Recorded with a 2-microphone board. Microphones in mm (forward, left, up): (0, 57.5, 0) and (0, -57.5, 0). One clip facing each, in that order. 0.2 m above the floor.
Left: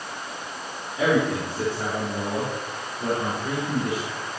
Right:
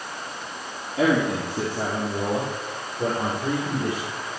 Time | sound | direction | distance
1.0 | a man speaking | 75° right (ahead or behind) | 5 m